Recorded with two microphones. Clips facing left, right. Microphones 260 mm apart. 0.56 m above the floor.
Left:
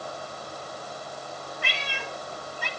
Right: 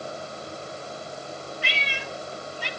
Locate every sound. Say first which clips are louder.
1.6 s a cat meowing: right 1 dB; 55° left (ahead or behind), 1.9 m